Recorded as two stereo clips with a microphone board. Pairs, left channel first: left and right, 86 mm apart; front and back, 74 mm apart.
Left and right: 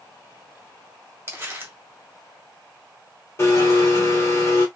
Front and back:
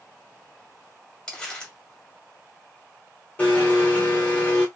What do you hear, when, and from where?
1.3 s crumpling: 65° right, 1.2 m
3.4 s a blender: 55° left, 1.4 m